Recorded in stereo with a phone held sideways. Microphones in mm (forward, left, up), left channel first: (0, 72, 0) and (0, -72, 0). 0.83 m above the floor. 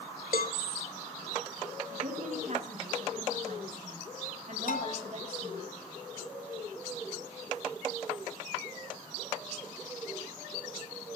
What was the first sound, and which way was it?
A cowbell, 80° left.